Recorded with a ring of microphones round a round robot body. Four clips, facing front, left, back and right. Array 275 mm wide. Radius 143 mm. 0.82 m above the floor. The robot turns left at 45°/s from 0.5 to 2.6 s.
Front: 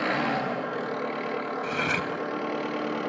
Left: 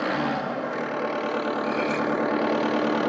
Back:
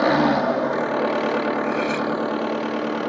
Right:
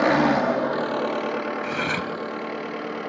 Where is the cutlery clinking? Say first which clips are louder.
Left 2 dB, back 7 dB; 55° right, 2.5 m; by 2.1 s 75° right, 2.5 m.